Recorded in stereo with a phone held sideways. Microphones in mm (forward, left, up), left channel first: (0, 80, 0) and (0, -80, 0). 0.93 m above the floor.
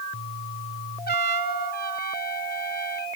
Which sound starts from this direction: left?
A trumpet, at 1.1 s.